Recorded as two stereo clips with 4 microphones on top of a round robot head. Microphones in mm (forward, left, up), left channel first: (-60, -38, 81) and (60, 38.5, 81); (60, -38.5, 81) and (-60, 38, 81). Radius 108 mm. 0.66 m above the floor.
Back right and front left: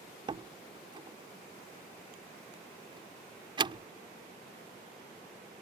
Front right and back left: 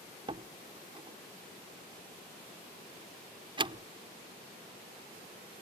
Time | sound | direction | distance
0.3 | a door slam | 90° left | ?